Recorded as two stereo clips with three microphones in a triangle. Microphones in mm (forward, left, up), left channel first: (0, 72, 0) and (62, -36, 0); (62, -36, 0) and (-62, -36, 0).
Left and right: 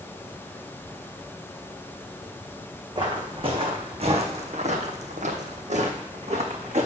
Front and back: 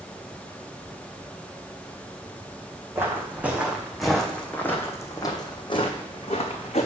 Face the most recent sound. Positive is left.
turn(degrees=-30)